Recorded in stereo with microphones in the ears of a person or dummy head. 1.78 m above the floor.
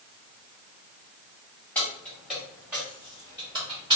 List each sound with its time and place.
1.8 s keys jangling: 5° left (ahead or behind), 1.8 m; by 4.0 s 25° right (ahead or behind), 2.5 m